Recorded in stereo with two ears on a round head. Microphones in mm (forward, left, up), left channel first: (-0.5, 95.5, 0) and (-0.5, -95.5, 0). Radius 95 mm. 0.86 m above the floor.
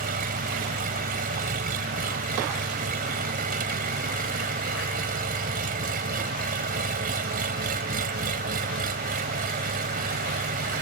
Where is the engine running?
45° right (ahead or behind).